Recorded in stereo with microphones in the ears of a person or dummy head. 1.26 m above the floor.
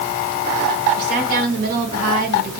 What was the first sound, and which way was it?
A woman speaking, 55° right (ahead or behind).